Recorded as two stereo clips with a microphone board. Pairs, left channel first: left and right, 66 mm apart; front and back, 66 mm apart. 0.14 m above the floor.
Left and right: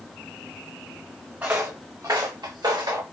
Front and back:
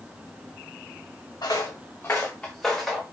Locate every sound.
1.4 s footsteps: 25° right, 0.7 m; by 3.0 s 90° right, 1.0 m